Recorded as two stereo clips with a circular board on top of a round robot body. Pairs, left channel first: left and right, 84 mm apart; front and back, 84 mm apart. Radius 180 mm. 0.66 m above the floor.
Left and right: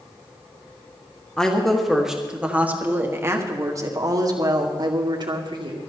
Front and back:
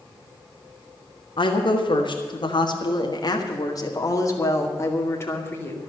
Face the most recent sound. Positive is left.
turn(degrees=-65)